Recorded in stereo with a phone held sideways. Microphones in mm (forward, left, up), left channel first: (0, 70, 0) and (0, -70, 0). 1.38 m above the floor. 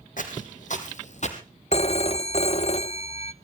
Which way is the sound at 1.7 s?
50° left (ahead or behind).